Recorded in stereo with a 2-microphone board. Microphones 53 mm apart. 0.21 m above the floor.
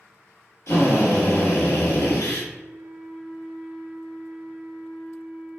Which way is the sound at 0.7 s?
60° left (ahead or behind).